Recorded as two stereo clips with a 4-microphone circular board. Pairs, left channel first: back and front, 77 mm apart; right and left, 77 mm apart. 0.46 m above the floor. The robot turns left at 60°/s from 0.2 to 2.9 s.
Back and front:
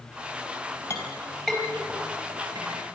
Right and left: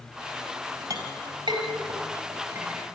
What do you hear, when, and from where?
0.9 s a clink: 125° left, 5.5 m; by 3.0 s 5° left, 5.5 m